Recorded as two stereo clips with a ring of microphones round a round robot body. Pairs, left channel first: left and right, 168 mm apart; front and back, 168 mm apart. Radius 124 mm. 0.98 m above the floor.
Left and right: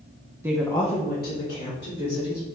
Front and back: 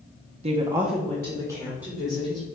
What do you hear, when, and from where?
0.4 s a woman speaking: 160° right, 0.6 m; by 2.5 s 65° left, 2.5 m